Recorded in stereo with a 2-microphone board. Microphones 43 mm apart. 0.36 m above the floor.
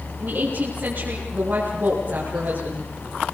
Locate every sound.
0.2 s a woman speaking: 50° right (ahead or behind), 7 m